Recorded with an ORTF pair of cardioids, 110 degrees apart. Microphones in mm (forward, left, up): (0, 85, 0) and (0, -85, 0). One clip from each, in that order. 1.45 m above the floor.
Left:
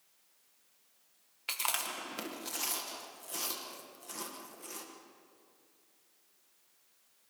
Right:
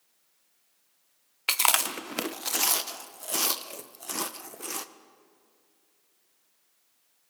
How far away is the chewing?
About 1.0 m.